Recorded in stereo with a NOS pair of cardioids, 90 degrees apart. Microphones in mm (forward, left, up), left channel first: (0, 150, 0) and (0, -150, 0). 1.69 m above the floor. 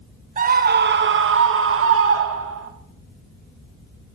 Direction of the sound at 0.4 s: 25° right.